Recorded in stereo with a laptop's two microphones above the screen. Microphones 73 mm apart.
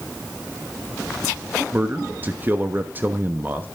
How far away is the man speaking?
About 1.0 m.